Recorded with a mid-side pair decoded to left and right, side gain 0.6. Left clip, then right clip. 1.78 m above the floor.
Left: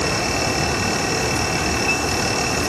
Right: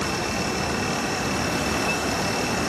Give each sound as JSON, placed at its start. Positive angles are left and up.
{"t": 0.0, "sound": "a fan", "azimuth_deg": 35}